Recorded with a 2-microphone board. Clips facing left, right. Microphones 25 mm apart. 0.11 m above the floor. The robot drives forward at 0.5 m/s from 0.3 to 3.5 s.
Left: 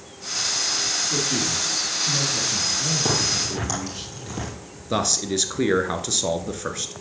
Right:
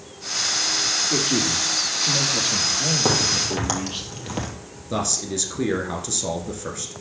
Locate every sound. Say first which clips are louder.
1.1 s a man speaking: right 2 dB; 50° right (ahead or behind), 4 m; by 4.0 s 60° right (ahead or behind), 3.5 m
3.0 s a crack: right 2 dB; 35° right (ahead or behind), 3 m
4.9 s a man speaking: left 3 dB; 25° left (ahead or behind), 1.2 m